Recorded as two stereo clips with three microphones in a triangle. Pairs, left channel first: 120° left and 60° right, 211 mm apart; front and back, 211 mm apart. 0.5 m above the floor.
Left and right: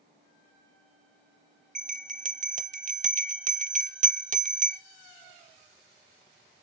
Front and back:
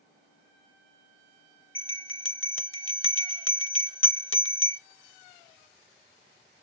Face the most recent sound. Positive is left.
turn(degrees=-5)